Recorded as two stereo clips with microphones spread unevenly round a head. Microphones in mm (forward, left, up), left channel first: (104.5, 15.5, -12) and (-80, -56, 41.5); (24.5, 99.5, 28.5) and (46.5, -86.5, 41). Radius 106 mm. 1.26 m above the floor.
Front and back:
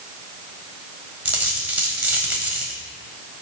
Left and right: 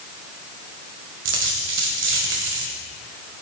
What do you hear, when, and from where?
1.2 s a dropped coin: 90° right, 1.8 m